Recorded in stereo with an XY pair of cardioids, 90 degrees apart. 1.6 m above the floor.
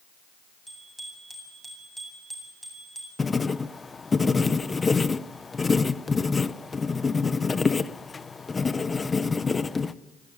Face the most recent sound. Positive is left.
turn(degrees=30)